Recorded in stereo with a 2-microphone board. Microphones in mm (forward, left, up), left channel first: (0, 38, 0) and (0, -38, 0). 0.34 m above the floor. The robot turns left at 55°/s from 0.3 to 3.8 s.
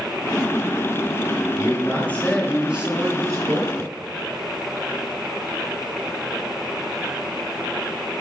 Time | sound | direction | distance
1.6 | a man speaking | 50° left | 4 m